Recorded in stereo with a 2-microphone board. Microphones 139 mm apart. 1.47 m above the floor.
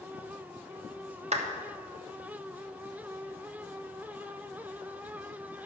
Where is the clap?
55° right (ahead or behind), 1.0 m.